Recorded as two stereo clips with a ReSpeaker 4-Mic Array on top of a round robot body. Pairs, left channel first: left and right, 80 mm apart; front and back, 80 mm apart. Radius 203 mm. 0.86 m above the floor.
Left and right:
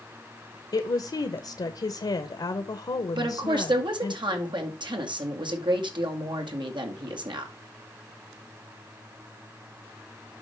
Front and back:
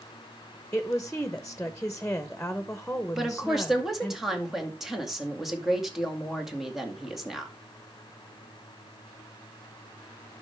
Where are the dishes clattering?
I don't hear dishes clattering.